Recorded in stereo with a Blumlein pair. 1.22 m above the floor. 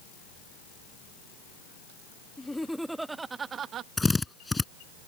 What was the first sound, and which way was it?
Laughter, 10° left.